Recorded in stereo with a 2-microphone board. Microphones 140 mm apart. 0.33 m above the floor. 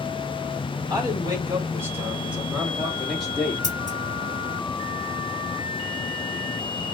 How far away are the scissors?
About 2.0 m.